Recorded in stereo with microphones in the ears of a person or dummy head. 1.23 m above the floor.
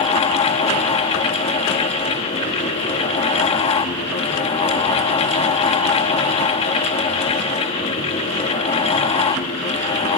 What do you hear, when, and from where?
0.0 s a fan: 30° left (ahead or behind), 1.0 m